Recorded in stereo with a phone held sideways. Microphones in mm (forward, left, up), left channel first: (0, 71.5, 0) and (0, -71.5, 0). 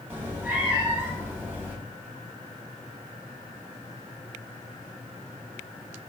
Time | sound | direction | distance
0.1 | a cat meowing | 15° right (ahead or behind) | 0.7 m